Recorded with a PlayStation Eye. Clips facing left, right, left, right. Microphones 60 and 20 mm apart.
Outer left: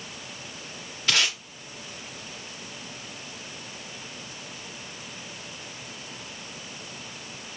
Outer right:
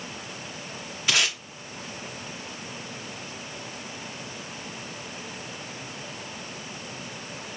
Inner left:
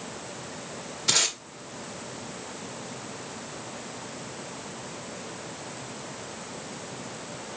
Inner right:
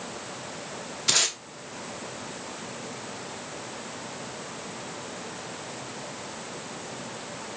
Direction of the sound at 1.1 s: 10° right (ahead or behind).